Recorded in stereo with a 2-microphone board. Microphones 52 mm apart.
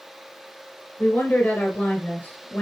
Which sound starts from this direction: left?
A woman speaking, at 1.0 s.